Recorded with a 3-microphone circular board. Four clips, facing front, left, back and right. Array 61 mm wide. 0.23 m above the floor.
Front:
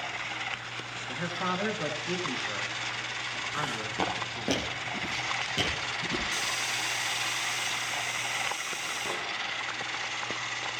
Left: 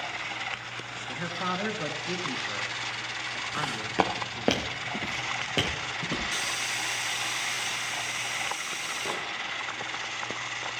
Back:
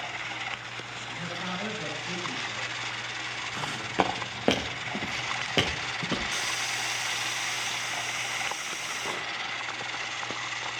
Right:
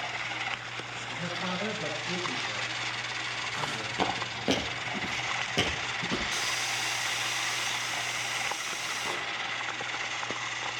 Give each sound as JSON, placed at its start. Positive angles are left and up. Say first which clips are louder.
{"t": 1.1, "sound": "a man speaking", "louder": "left 3 dB, front 4 dB", "azimuth_deg": 50, "distance_m": 3.0}
{"t": 3.5, "sound": "footsteps", "louder": "left 5 dB, back 4 dB", "azimuth_deg": 115, "distance_m": 2.5}
{"t": 6.3, "sound": "a hiss", "louder": "even, even", "azimuth_deg": 115, "distance_m": 3.5}